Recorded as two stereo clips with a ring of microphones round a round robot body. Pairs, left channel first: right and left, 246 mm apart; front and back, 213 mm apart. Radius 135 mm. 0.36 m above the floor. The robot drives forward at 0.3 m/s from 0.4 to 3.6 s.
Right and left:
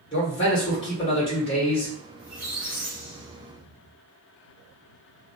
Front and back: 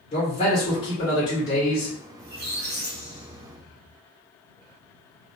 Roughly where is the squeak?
Behind.